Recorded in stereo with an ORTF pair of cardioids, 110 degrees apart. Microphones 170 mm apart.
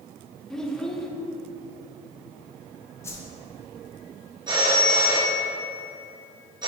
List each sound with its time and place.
0.5 s a child speaking: 5° left, 0.9 m
3.0 s a whoosh: 15° left, 1.1 m
4.5 s a phone ringing: 25° right, 1.9 m